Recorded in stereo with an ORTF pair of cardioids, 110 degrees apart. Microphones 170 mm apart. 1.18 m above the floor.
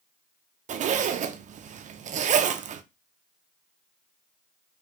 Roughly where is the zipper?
Ahead right.